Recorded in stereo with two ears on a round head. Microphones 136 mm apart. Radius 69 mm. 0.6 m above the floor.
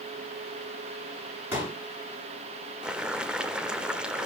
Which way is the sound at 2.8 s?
5° right (ahead or behind).